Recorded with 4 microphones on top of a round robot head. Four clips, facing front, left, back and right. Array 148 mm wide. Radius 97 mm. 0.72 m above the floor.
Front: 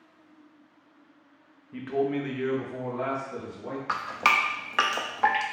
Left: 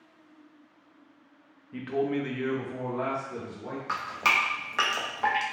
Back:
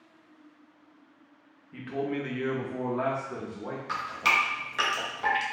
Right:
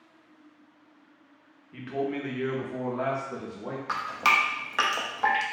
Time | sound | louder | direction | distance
1.7 | a man speaking | left 2 dB, front 4 dB | 40° left | 0.8 m
3.9 | dripping | right 3 dB, front 3 dB | 10° right | 0.6 m